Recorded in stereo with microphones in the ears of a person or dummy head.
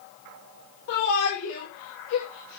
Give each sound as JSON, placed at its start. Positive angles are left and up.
{"t": 0.9, "sound": "a shout", "side_deg": 65, "distance_m": 6.5}